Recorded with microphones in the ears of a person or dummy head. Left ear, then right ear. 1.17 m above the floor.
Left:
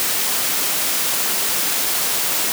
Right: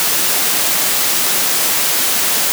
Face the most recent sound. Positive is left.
No sound to turn to.